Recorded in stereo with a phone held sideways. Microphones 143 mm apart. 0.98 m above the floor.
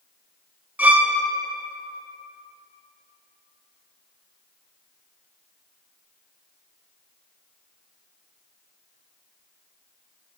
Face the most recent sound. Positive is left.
turn(degrees=-10)  # may be behind; listen again after turning